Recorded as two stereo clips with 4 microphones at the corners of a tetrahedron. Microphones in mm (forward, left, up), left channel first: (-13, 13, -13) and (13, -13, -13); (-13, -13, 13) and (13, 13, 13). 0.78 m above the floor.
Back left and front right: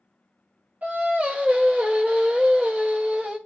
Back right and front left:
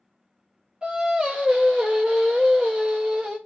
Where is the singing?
15° right, 0.8 m.